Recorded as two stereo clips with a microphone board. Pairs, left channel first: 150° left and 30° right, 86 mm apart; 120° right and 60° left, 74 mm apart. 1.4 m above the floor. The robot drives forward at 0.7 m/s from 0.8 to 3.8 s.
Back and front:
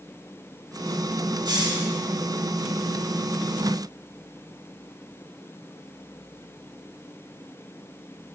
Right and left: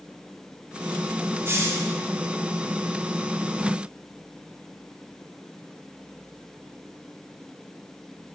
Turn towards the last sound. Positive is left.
turn(degrees=160)